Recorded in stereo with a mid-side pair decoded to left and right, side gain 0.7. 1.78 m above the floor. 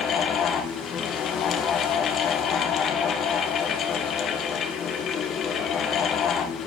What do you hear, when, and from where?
0.0 s a fan: 45° left, 3 m